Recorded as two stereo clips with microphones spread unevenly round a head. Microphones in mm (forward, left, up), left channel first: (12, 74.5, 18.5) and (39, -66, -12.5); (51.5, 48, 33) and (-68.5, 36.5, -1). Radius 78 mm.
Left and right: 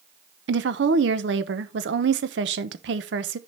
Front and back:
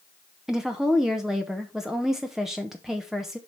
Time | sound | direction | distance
0.5 | a woman speaking | 80° right | 0.9 m